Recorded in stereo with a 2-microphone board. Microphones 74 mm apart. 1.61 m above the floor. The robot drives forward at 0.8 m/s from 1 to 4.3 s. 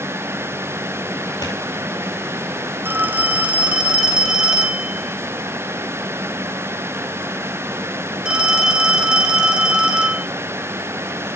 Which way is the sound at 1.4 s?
65° left (ahead or behind).